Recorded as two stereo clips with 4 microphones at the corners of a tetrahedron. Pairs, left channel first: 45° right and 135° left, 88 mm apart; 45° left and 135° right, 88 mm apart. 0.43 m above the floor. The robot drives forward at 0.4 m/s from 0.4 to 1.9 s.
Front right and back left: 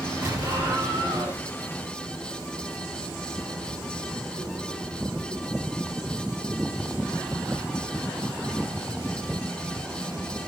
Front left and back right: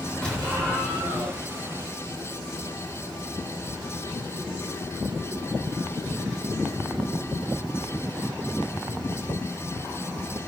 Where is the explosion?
120° left, 1.6 m; by 1.4 s 135° left, 1.8 m.